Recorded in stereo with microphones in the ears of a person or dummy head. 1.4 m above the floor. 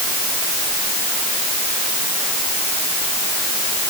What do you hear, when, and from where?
Only background noise.